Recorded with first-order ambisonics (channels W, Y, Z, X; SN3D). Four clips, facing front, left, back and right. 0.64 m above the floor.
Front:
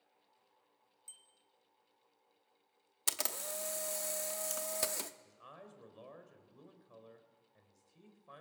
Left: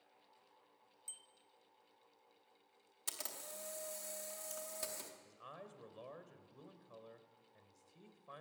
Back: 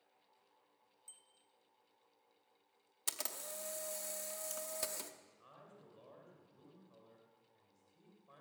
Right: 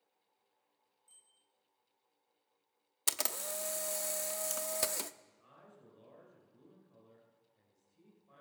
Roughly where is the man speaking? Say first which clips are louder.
Left 7 dB, front 6 dB; ahead left.